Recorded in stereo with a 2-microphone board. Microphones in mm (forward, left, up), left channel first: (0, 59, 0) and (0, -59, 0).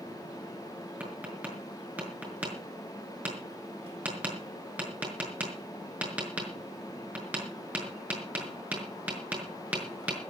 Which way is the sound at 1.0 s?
15° right (ahead or behind).